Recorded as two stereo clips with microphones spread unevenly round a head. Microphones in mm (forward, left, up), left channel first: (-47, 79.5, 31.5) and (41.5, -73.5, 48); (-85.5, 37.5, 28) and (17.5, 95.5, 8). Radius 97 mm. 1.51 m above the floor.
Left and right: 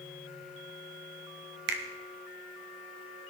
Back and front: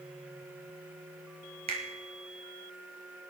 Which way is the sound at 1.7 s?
30° right.